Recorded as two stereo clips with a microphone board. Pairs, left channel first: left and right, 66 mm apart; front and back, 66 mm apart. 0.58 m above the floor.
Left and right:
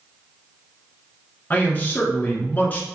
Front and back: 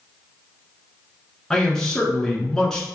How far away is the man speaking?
About 1.2 m.